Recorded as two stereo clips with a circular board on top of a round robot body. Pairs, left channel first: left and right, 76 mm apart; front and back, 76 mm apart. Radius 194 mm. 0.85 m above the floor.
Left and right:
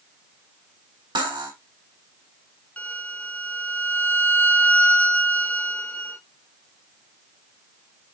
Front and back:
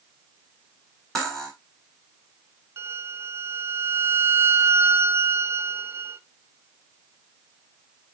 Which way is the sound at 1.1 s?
85° right.